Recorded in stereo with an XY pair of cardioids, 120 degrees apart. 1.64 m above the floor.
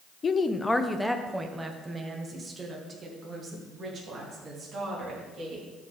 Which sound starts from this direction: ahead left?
A woman speaking, at 0.2 s.